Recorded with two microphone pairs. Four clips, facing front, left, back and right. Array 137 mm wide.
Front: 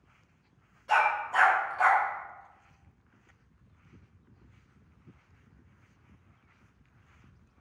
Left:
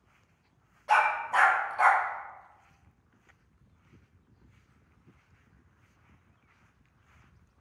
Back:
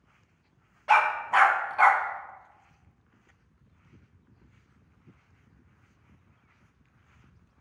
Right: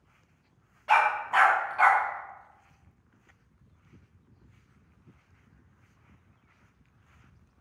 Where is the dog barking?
170° right, 0.6 m.